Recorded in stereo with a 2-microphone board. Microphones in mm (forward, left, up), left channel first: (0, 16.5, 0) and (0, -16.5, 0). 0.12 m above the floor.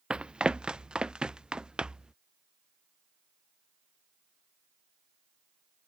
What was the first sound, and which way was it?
Running footsteps, 35° right (ahead or behind).